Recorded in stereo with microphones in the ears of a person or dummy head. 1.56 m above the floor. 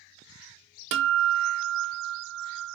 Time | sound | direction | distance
0.9 | a guitar | 60° right (ahead or behind) | 0.8 m